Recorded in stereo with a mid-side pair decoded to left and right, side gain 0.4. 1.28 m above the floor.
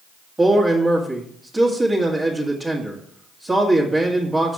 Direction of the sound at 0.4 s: 25° right.